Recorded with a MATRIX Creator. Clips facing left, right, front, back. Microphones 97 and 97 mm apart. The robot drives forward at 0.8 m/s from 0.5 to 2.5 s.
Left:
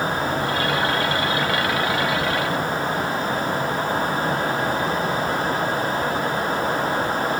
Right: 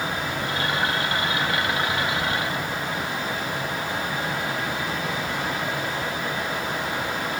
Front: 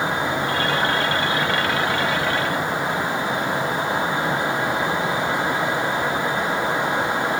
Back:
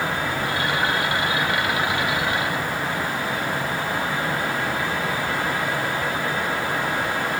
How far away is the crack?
No crack in this recording.